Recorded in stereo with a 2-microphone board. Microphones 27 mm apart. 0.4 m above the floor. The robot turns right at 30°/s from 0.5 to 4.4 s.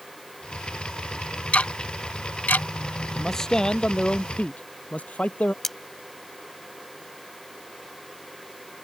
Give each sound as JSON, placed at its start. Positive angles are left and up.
{"t": 1.5, "sound": "ticking", "side_deg": 45}
{"t": 3.1, "sound": "a man speaking", "azimuth_deg": 10}
{"t": 5.6, "sound": "cutlery clinking", "side_deg": 10}